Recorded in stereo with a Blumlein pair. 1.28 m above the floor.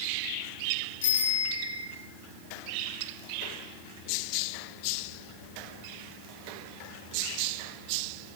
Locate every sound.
1.0 s a bicycle bell: 55° left, 6.5 m